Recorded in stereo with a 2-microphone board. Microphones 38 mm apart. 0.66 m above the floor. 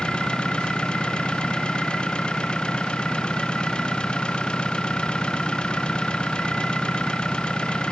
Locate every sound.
0.0 s an engine running: 25° left (ahead or behind)